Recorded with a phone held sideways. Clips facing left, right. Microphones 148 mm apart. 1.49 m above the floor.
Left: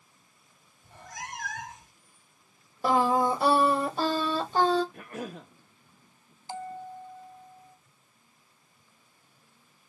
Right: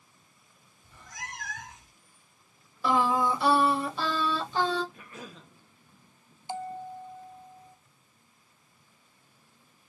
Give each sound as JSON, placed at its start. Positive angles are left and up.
{"t": 0.8, "sound": "a cat meowing", "side_deg": 60, "distance_m": 2.0}
{"t": 2.8, "sound": "singing", "side_deg": 45, "distance_m": 1.2}
{"t": 4.9, "sound": "a cough", "side_deg": 60, "distance_m": 1.0}
{"t": 6.5, "sound": "a bell", "side_deg": -20, "distance_m": 0.6}